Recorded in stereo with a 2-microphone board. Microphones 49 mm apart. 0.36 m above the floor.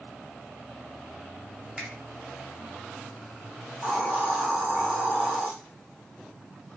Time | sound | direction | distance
1.8 | a finger snap | 25° right (ahead or behind) | 1.8 m
3.8 | a hiss | 45° right (ahead or behind) | 4 m